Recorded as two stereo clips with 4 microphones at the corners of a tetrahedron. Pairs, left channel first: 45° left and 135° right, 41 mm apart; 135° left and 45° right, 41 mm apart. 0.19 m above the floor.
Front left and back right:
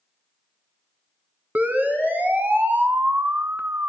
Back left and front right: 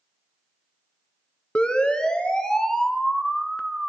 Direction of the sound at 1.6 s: 165° right.